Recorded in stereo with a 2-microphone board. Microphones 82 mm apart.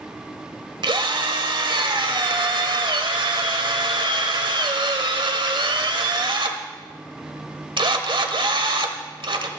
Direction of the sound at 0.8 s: 85° right.